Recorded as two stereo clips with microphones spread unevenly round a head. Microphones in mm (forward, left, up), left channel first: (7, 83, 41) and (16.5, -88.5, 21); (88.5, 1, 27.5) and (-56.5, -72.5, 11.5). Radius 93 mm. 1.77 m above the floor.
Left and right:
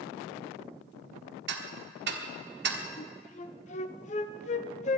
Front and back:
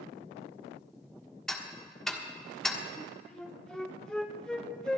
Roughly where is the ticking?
Ahead right.